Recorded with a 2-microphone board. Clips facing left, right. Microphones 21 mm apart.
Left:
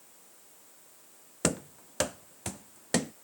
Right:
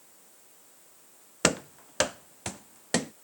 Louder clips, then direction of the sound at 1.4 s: Right 5 dB; 35° right (ahead or behind).